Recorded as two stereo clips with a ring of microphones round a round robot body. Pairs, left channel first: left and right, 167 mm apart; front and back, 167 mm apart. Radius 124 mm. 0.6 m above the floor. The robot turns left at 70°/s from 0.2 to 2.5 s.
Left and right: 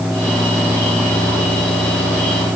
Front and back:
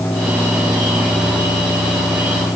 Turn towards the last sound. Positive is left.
No sound to turn to.